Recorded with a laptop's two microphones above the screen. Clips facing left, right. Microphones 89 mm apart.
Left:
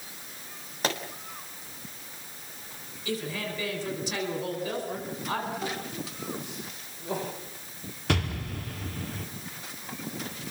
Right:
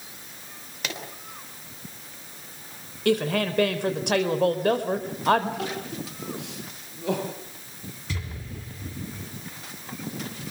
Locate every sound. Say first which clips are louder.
0.8 s a pop: left 5 dB; 40° left (ahead or behind), 3 m
3.0 s a woman speaking: right 10 dB; 65° right (ahead or behind), 4 m
5.6 s crying: right 2 dB; 85° right, 8.5 m
8.1 s an explosion: left 9 dB; 70° left (ahead or behind), 2 m